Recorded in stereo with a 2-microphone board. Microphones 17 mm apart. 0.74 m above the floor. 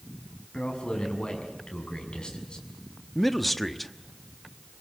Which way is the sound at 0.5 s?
60° left (ahead or behind).